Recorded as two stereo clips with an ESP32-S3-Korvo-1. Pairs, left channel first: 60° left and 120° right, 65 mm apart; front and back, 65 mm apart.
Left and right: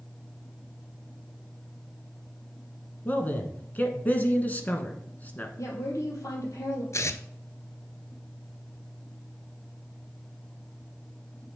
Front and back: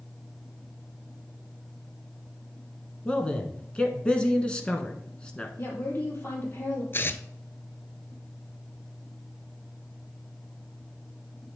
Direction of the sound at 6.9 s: 45° left.